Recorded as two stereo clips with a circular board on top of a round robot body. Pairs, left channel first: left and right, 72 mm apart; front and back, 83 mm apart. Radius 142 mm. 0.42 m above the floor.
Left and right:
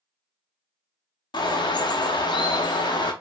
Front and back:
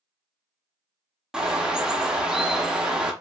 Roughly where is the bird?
Left.